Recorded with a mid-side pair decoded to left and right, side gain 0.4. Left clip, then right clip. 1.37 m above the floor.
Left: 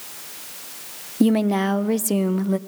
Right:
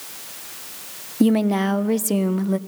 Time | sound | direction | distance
1.2 | a woman speaking | 5° left | 0.6 m